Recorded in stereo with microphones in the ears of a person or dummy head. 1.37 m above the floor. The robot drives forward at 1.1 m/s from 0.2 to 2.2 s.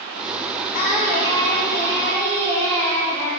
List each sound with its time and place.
0.7 s singing: 50° left (ahead or behind), 1.1 m; by 3.3 s 20° left (ahead or behind), 2.5 m